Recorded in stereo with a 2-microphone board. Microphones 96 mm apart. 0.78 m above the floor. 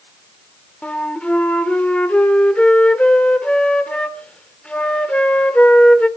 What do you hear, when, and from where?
0.8 s a flute: 10° left (ahead or behind), 1.4 m